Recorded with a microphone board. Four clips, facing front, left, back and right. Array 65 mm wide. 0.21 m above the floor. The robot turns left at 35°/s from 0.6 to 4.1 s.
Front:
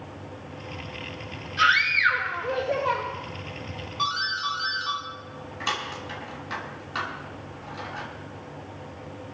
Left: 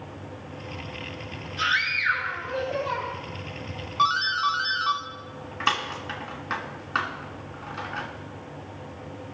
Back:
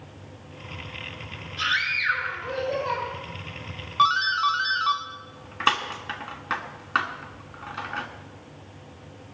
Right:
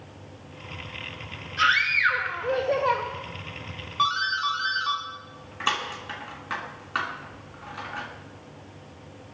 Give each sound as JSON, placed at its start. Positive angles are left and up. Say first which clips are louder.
{"t": 1.6, "sound": "a scream", "louder": "right 4 dB, front 6 dB", "azimuth_deg": -30, "distance_m": 6.5}
{"t": 4.0, "sound": "a doorbell", "louder": "left 2 dB, back 8 dB", "azimuth_deg": 170, "distance_m": 2.5}